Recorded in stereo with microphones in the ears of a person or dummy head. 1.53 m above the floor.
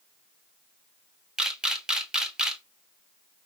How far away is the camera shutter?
About 0.5 m.